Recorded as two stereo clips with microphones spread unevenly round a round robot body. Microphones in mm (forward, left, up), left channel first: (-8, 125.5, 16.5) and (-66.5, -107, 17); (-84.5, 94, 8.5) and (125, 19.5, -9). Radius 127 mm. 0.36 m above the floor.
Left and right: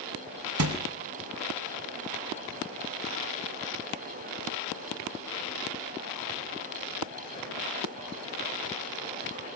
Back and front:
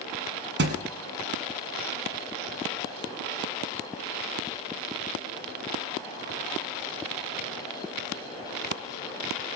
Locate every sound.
0.6 s a thud: 70° right, 1.8 m